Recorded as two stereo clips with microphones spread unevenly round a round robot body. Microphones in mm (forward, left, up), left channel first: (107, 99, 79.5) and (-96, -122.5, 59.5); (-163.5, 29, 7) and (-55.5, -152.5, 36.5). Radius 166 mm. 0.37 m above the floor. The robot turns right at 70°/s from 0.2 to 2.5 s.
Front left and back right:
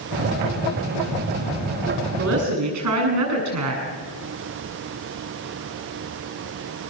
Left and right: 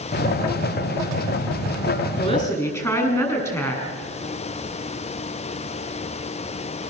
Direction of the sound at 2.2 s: 175° left.